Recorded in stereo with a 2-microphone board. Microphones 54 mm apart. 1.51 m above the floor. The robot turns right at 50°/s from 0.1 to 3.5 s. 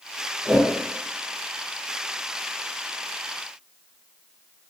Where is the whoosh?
5° right (ahead or behind), 1.1 m; by 0.7 s 15° right (ahead or behind), 1.1 m.